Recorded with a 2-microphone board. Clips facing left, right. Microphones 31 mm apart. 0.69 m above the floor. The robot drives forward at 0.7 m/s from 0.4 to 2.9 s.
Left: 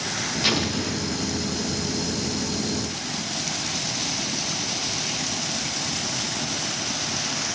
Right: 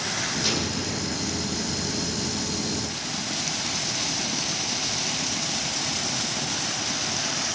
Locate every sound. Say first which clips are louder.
0.4 s an explosion: left 3 dB; 40° left (ahead or behind), 0.8 m; by 1.5 s 20° left (ahead or behind), 1.3 m